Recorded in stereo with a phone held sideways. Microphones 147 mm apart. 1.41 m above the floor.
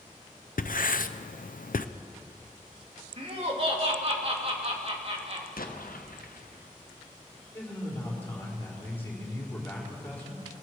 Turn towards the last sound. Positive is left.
turn(degrees=15)  # may be behind; listen again after turning